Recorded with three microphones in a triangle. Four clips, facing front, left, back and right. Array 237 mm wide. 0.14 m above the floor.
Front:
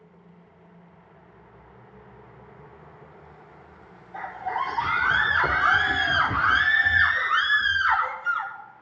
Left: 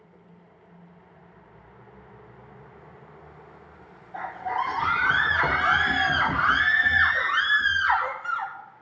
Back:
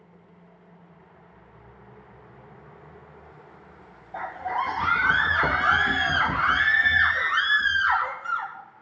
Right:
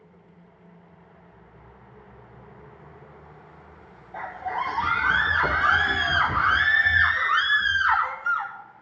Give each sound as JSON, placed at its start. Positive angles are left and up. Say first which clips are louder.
{"t": 4.1, "sound": "a scream", "louder": "left 1 dB, back 1 dB", "azimuth_deg": -165, "distance_m": 3.5}